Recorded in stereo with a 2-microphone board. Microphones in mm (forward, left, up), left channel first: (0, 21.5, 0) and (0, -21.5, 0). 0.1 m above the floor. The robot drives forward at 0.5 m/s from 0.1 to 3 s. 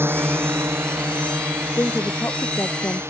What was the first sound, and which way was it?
A drone, 60° right (ahead or behind).